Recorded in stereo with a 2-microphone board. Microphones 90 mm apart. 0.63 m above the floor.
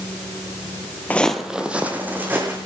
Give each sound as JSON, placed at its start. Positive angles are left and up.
{"t": 1.1, "sound": "footsteps", "side_deg": 15, "distance_m": 0.7}